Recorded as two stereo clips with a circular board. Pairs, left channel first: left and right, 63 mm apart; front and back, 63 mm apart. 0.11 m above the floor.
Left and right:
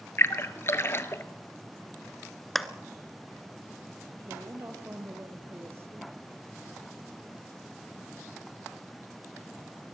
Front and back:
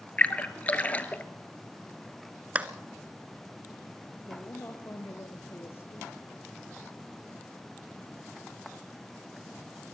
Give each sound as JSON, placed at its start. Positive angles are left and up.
{"t": 0.2, "sound": "a splash", "azimuth_deg": 55, "distance_m": 1.1}
{"t": 2.5, "sound": "a clap", "azimuth_deg": 175, "distance_m": 1.0}
{"t": 4.2, "sound": "a woman speaking", "azimuth_deg": -45, "distance_m": 2.5}